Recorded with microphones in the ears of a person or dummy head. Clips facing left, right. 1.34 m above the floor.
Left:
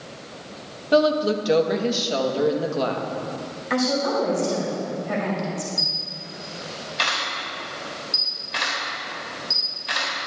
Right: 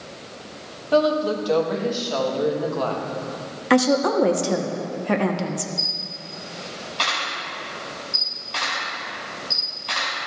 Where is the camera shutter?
25° left (ahead or behind), 3 m.